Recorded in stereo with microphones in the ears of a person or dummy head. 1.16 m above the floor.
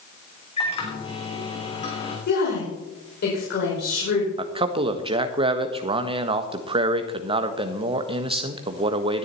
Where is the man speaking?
35° right (ahead or behind), 1.3 m.